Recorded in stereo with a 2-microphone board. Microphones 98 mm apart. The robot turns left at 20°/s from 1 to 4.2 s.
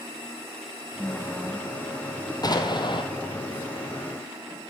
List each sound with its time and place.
1.0 s a woman speaking: 10° left (ahead or behind), 1.1 m; by 2.3 s 5° right (ahead or behind), 1.1 m
2.4 s an explosion: 40° left (ahead or behind), 1.7 m; by 3.0 s 50° left (ahead or behind), 1.7 m